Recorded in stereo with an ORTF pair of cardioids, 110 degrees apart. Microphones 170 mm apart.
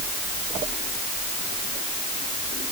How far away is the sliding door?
No sliding door in this recording.